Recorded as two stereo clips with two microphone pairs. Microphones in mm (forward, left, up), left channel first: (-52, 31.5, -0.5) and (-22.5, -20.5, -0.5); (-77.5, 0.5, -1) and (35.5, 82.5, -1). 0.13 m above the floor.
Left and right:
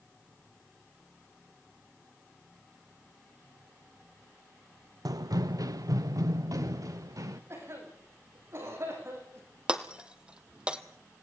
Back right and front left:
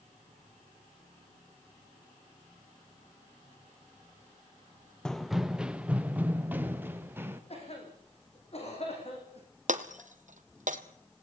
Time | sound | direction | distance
5.0 | running footsteps | 60° right | 0.5 m
7.5 | a cough | 105° right | 7.5 m
9.7 | breaking glass | 15° left | 1.4 m